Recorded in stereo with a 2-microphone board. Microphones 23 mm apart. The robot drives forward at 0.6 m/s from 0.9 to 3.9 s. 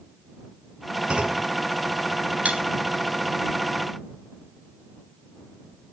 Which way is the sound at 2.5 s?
75° right (ahead or behind).